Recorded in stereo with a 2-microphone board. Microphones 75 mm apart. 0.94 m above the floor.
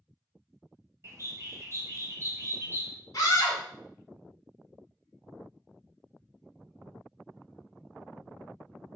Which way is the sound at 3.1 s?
45° left (ahead or behind).